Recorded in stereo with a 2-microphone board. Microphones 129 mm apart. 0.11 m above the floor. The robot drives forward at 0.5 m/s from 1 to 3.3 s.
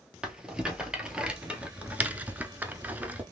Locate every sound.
0.2 s a rattle: 5° right (ahead or behind), 0.9 m; by 3.2 s 10° right (ahead or behind), 0.6 m